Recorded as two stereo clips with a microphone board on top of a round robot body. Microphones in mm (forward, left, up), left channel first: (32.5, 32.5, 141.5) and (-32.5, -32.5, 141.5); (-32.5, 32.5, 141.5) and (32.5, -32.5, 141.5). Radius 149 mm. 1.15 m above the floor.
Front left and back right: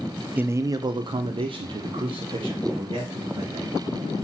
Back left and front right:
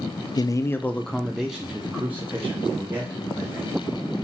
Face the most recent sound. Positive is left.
turn(degrees=-110)